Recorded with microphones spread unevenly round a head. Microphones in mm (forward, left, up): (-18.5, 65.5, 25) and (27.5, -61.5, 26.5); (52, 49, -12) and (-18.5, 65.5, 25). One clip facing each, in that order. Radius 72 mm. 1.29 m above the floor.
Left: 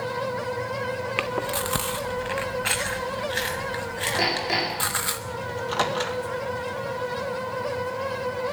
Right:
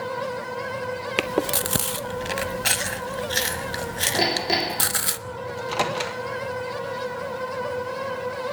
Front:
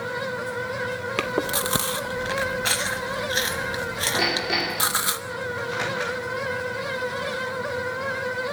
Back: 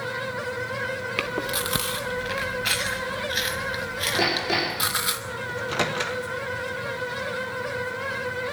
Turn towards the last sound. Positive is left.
turn(degrees=-150)